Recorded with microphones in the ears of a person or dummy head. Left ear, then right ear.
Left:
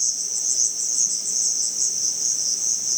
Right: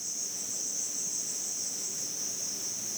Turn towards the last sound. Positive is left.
turn(degrees=55)  # may be behind; listen again after turning